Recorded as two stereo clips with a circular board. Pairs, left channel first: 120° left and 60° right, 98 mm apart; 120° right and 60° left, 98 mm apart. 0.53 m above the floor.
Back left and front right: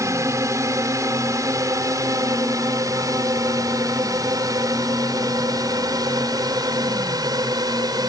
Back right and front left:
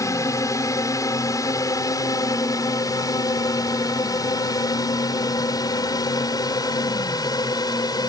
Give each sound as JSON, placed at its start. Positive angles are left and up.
{"t": 0.0, "sound": "a drone", "azimuth_deg": -90}